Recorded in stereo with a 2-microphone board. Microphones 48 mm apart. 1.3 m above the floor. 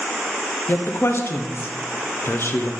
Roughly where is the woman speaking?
Left.